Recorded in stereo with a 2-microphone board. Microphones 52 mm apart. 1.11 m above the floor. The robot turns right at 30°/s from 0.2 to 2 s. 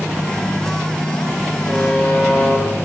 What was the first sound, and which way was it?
A buzzer, 10° left (ahead or behind).